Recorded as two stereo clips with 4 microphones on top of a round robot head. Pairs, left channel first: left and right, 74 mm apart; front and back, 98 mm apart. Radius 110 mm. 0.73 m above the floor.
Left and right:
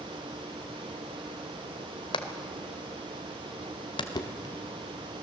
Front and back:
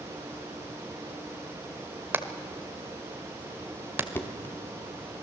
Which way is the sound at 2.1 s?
110° left.